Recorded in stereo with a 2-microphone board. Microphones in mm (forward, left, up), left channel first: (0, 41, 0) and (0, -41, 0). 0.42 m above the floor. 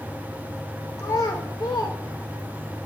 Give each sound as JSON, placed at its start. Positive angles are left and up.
{"t": 1.0, "sound": "a child speaking", "side_deg": 40, "distance_m": 0.9}